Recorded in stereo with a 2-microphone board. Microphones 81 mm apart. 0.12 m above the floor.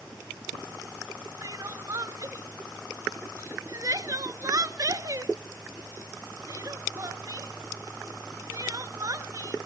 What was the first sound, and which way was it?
Crying, 45° right (ahead or behind).